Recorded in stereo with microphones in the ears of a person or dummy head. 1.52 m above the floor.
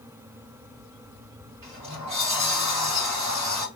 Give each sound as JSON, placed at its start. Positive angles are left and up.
{"t": 1.6, "sound": "a sliding door", "side_deg": -35, "distance_m": 1.9}